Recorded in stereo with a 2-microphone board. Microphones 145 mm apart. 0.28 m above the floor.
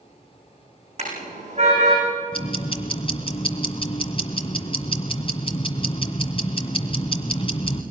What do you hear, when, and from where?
1.0 s a car horn: 50° right (ahead or behind), 10 m
2.3 s ticking: 40° left (ahead or behind), 1.8 m